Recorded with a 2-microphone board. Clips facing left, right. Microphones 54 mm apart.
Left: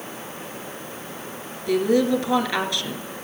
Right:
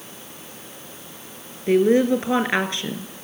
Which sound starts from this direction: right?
A woman speaking, at 1.7 s.